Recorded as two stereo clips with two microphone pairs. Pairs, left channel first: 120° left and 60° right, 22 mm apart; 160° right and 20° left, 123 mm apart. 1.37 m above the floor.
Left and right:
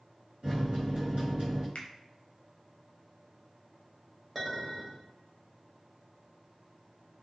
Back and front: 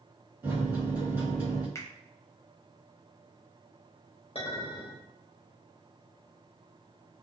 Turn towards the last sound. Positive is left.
turn(degrees=-155)